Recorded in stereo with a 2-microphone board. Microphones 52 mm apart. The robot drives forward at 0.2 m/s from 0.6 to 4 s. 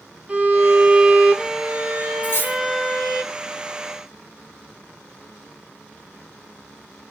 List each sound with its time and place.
0.3 s a violin: 25° right (ahead or behind), 0.8 m; by 3.2 s 15° right (ahead or behind), 1.2 m
2.2 s cutlery clinking: 40° left (ahead or behind), 0.9 m; by 2.6 s 45° left (ahead or behind), 0.8 m